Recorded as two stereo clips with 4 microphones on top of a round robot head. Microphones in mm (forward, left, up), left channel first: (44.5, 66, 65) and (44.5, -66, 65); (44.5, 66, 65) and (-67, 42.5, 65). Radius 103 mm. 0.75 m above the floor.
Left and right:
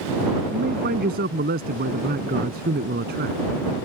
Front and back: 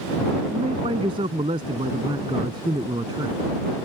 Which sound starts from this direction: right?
A man speaking, at 0.5 s.